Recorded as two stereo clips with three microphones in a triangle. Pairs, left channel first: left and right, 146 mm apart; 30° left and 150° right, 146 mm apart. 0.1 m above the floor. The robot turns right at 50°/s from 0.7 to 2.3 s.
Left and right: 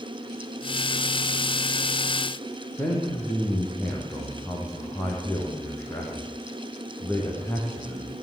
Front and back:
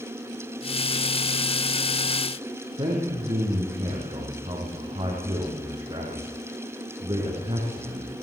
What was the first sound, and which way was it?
A man speaking, 165° left.